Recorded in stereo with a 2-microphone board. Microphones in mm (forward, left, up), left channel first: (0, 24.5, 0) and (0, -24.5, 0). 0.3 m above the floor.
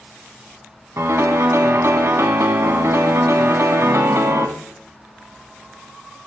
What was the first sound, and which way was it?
A piano, 75° right (ahead or behind).